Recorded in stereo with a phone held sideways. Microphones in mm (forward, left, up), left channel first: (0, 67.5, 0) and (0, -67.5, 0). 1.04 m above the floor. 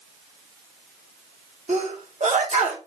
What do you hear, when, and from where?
1.7 s a sneeze: 60° right (ahead or behind), 1.0 m